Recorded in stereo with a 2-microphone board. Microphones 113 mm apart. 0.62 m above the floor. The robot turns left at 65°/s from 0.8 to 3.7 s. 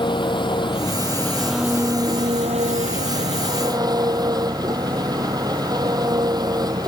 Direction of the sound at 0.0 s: 45° left.